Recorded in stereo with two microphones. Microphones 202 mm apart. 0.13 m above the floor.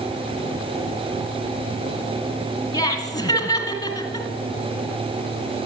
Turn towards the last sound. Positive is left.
turn(degrees=20)  # may be behind; listen again after turning